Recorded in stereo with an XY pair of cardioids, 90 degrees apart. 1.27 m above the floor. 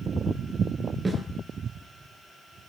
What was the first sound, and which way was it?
A snare drum, 30° right.